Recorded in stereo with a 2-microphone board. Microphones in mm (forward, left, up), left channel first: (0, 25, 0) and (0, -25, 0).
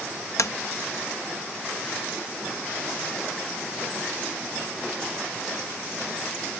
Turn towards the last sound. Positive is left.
turn(degrees=80)